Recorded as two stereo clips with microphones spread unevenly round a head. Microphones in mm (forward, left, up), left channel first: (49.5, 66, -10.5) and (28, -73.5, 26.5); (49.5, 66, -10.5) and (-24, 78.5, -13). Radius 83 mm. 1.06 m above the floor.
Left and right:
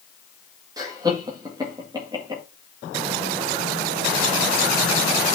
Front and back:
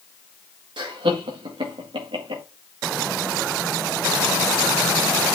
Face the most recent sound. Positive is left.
turn(degrees=-175)